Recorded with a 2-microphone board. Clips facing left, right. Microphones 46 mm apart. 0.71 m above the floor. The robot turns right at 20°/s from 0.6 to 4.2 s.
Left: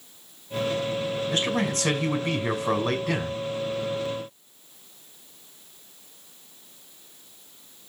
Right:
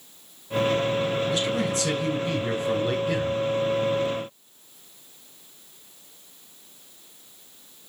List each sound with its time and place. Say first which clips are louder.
1.3 s a man speaking: right 1 dB; 45° left, 6 m; by 3.4 s 90° left, 6 m